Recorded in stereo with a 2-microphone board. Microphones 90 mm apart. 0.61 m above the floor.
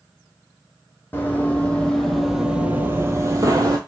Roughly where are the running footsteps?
Left.